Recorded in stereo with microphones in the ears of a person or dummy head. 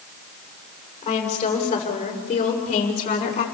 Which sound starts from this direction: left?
A woman speaking, at 1.0 s.